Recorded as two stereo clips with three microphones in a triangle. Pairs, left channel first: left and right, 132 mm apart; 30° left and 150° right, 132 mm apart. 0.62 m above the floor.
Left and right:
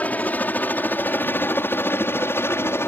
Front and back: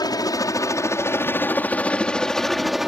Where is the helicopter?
25° left; by 2.9 s 130° left.